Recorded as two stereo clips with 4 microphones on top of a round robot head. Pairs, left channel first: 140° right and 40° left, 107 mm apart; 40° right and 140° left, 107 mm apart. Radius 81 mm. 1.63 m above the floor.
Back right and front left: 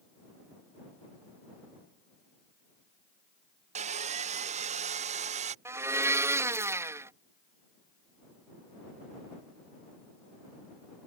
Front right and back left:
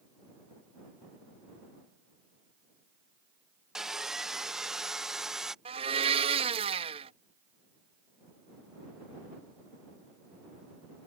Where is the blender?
105° left.